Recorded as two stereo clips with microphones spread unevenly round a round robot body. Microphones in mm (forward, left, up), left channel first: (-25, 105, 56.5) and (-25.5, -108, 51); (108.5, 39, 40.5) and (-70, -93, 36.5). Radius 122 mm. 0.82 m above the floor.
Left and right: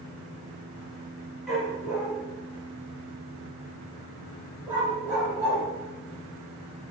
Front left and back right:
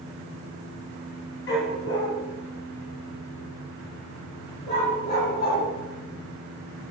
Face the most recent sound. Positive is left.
turn(degrees=-10)